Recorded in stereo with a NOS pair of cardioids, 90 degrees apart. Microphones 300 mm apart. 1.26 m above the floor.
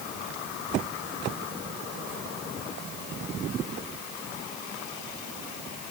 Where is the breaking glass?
I don't hear breaking glass.